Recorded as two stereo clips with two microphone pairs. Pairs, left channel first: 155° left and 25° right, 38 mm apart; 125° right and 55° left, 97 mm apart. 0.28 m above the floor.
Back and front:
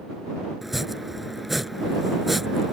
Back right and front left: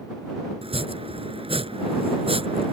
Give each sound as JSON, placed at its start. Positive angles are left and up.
{"t": 0.6, "sound": "chopping", "azimuth_deg": 60}